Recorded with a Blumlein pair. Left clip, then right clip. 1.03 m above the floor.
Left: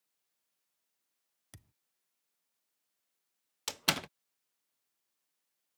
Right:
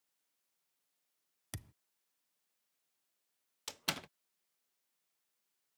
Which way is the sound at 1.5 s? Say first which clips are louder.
Right 10 dB; 65° right.